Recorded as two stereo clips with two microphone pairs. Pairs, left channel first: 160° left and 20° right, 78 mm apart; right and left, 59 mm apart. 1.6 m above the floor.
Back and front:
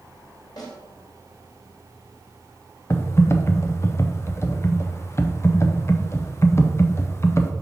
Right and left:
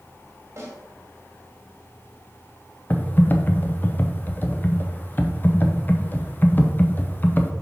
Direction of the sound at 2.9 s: 145° right.